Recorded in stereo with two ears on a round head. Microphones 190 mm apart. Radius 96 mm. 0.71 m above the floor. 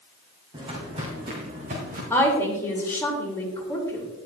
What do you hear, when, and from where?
0.5 s footsteps: 25° right (ahead or behind), 3 m; by 2.0 s 45° right (ahead or behind), 3.5 m
2.1 s a woman speaking: 10° left (ahead or behind), 3 m